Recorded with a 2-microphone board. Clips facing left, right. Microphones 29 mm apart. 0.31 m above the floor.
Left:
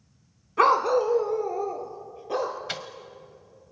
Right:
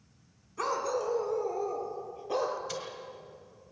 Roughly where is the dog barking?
Left.